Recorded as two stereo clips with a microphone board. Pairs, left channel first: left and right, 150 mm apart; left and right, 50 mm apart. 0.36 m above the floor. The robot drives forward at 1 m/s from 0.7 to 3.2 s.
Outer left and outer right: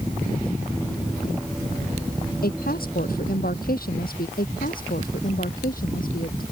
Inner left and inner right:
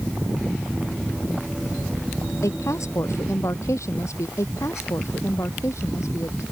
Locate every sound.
2.4 s a woman speaking: 80° left; by 4.3 s 75° left (ahead or behind)
4.4 s a woman speaking: 70° left (ahead or behind)